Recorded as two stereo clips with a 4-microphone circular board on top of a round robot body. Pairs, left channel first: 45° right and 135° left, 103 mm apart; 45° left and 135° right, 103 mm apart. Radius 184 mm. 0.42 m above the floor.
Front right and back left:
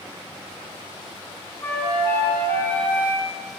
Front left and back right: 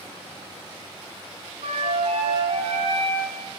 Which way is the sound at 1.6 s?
115° right.